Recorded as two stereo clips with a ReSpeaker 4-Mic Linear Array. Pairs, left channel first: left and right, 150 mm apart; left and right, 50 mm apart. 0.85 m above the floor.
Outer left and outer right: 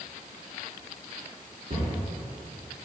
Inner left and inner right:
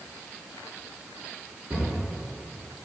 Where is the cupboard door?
60° right (ahead or behind), 3 m.